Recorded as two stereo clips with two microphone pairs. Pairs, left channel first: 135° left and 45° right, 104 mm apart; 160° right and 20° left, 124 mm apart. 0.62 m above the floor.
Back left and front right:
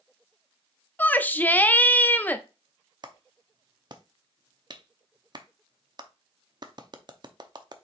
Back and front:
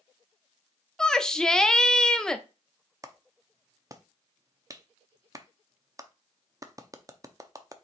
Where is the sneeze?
No sneeze in this recording.